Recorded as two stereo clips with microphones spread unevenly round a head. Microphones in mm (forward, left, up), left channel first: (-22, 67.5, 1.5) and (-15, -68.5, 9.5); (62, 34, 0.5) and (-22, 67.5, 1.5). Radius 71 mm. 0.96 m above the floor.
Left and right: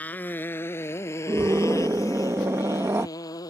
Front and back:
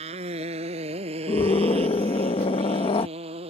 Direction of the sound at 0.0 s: 170° left.